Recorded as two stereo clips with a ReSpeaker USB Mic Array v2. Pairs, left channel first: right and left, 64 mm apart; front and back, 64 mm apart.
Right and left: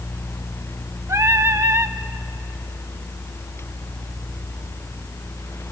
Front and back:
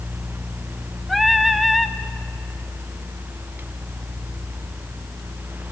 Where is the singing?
90° left, 0.8 m.